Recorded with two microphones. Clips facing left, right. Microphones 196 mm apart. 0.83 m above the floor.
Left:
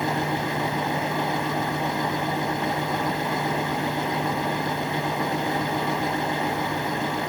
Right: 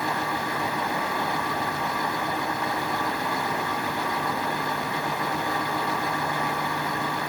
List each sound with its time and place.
Only background noise.